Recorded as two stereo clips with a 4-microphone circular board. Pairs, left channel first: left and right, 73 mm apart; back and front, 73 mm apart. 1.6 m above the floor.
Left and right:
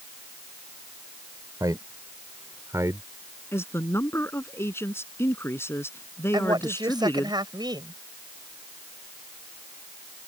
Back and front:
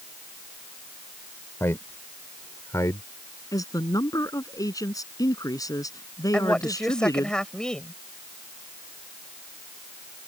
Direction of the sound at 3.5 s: 145° left.